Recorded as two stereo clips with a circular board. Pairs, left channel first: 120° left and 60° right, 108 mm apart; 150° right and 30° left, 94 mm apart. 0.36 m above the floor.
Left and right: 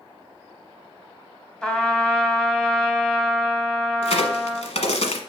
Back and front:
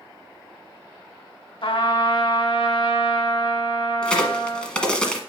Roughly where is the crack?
Behind left.